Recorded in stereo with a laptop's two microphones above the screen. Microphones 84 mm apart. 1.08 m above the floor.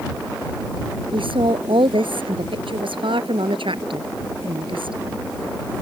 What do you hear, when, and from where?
1.1 s a woman speaking: 85° right